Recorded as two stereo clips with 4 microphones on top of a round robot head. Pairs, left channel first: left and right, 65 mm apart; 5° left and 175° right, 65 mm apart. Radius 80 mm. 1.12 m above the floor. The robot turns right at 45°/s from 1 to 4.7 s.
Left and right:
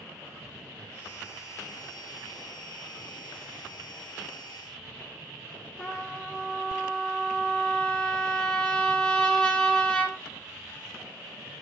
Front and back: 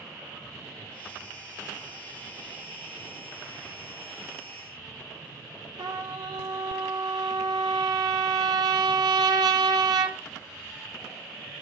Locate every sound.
5.8 s a trumpet: 175° left, 1.5 m